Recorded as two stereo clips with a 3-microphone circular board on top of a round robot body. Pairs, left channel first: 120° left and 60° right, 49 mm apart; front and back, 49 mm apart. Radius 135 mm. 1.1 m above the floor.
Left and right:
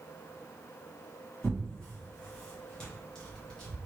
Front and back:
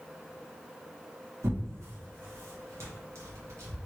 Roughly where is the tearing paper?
Behind.